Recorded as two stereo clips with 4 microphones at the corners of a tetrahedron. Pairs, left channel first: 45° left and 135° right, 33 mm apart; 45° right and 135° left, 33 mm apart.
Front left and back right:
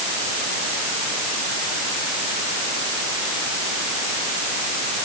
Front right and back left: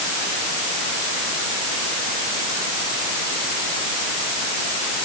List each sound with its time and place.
Only background noise.